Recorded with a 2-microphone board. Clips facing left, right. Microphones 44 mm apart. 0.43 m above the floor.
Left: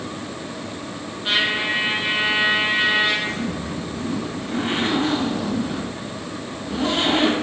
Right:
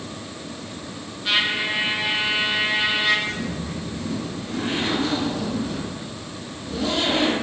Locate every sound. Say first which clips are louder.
1.2 s a trumpet: left 1 dB; 20° left (ahead or behind), 3.5 m
3.2 s a zipper: left 2 dB; 45° left (ahead or behind), 2.5 m